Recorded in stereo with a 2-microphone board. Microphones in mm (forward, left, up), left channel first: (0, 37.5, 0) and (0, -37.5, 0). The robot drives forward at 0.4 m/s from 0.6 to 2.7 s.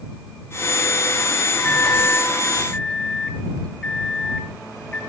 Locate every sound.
1.6 s a microwave: 20° left (ahead or behind), 0.9 m; by 5.0 s 15° left (ahead or behind), 1.0 m